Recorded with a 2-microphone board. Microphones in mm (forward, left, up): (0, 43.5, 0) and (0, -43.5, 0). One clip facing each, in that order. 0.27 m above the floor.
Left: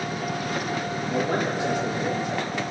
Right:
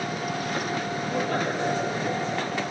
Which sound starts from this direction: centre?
A man speaking, at 1.1 s.